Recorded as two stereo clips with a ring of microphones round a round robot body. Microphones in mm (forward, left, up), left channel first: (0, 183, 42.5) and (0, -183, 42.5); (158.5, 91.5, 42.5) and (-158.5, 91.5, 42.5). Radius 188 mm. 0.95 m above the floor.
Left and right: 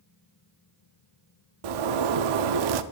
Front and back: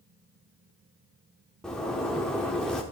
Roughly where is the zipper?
Right.